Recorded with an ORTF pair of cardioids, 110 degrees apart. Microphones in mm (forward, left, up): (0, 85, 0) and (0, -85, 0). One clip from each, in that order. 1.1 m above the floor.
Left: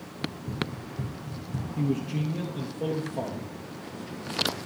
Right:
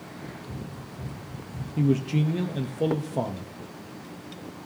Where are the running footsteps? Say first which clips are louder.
Left 10 dB; 55° left, 3.5 m.